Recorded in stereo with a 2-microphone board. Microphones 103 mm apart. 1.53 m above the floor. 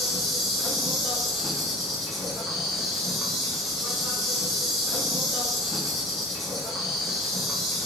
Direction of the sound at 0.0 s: Centre (ahead or behind).